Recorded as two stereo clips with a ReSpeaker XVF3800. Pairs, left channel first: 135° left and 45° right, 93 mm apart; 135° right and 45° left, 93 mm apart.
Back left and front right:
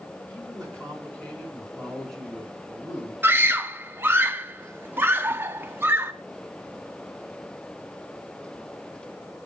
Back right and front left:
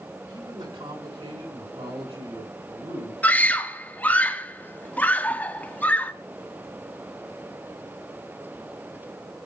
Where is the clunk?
I don't hear a clunk.